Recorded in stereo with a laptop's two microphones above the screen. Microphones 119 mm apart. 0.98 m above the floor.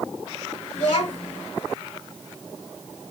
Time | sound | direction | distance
0.7 | a child speaking | 90° left | 3.5 m